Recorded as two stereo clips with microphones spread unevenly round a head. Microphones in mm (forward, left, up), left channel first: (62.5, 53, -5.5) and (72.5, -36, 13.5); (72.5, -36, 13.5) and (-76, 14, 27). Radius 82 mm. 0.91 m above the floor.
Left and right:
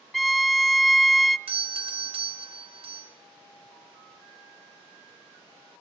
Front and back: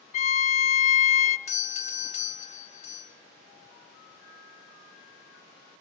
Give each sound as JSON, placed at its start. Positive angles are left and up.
{"t": 0.1, "sound": "a violin", "azimuth_deg": -15, "distance_m": 0.6}
{"t": 1.5, "sound": "a doorbell", "azimuth_deg": -60, "distance_m": 2.0}